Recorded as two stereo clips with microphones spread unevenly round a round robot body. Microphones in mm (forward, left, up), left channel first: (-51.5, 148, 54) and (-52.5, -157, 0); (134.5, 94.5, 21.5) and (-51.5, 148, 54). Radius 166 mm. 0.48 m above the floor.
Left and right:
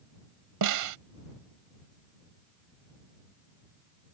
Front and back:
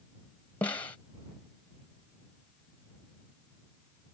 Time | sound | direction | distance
0.6 | a snare drum | 95° right | ?